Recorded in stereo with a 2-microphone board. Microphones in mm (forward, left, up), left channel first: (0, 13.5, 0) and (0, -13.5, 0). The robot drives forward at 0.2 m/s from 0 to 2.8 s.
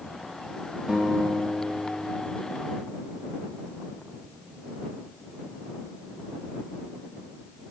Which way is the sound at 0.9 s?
30° right (ahead or behind).